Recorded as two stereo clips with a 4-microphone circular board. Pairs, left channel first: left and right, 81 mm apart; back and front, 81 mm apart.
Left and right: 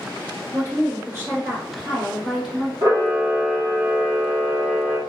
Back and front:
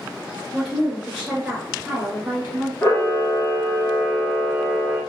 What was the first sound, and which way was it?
A woman speaking, 95° right.